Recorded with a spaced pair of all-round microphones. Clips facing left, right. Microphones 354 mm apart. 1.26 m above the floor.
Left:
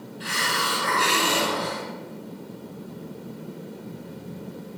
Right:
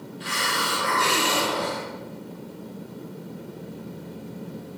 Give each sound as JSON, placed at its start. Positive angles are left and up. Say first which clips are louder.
{"t": 0.2, "sound": "a hiss", "louder": "even", "side_deg": 70, "distance_m": 4.0}